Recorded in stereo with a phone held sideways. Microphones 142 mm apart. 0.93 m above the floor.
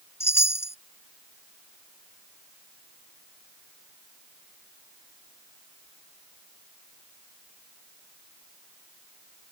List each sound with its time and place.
0.2 s a chime: 15° left (ahead or behind)